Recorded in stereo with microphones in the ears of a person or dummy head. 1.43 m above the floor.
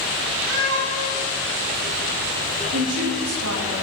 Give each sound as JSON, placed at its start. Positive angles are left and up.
{"t": 0.5, "sound": "a cat meowing", "side_deg": -65, "distance_m": 3.5}
{"t": 2.7, "sound": "a woman speaking", "side_deg": -85, "distance_m": 3.0}